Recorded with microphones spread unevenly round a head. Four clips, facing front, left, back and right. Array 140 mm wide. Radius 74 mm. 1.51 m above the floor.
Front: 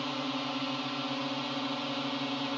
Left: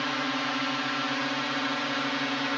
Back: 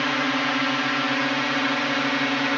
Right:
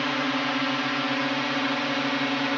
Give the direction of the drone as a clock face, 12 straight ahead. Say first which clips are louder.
Right 4 dB, back 10 dB; 5 o'clock.